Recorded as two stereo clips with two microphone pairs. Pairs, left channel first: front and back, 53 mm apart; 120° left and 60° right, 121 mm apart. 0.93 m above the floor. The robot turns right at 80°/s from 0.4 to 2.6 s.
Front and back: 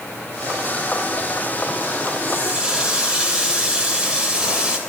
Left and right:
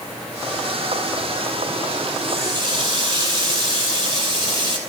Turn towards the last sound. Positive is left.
turn(degrees=-105)